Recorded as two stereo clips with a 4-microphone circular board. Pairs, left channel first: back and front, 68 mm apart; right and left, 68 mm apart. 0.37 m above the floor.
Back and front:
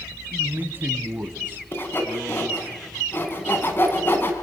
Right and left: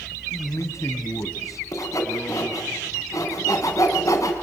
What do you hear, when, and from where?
0.3 s a man speaking: 55° right, 1.8 m; by 2.7 s 60° right, 3.5 m
1.7 s sawing: 125° right, 3.5 m